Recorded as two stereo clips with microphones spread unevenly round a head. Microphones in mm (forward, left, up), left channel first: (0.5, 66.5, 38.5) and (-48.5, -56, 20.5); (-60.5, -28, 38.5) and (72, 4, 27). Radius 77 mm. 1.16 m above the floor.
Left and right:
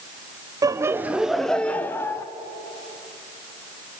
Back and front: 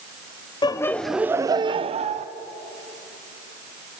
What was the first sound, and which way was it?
Laughter, 125° right.